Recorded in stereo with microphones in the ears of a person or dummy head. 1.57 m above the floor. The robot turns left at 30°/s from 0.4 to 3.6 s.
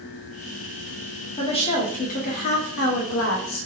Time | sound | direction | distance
1.4 | a woman speaking | 155° left | 1.1 m